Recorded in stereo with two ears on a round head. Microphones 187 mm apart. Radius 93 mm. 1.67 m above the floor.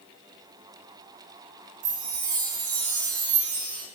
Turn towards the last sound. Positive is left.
turn(degrees=-75)  # may be behind; listen again after turning